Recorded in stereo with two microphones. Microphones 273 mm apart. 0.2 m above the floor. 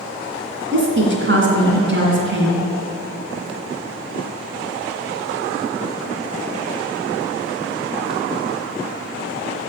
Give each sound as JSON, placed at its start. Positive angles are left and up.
{"t": 0.7, "sound": "a woman speaking", "side_deg": -45, "distance_m": 2.5}